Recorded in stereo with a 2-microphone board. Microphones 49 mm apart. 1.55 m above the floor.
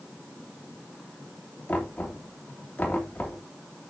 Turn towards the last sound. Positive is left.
turn(degrees=30)  # may be behind; listen again after turning